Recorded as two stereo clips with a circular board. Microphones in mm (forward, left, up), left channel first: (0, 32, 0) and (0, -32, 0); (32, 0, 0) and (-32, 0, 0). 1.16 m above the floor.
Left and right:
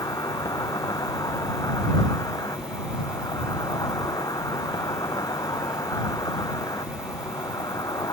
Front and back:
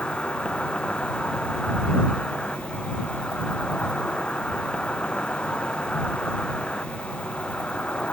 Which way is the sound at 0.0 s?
75° left.